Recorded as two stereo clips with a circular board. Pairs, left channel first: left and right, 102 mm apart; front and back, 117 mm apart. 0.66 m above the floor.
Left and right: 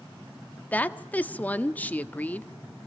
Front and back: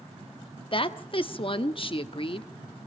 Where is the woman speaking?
20° left, 0.9 m.